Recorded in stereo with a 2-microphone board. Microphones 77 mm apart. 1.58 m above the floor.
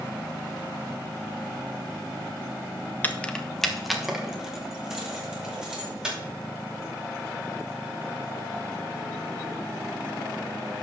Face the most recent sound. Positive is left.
turn(degrees=-10)  # may be behind; listen again after turning